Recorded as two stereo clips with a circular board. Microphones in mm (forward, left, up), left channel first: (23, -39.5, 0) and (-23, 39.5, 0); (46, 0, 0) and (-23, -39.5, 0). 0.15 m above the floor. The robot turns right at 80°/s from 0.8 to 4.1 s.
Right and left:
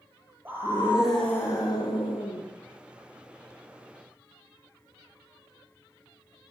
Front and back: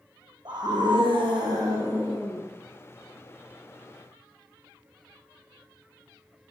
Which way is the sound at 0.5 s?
170° right.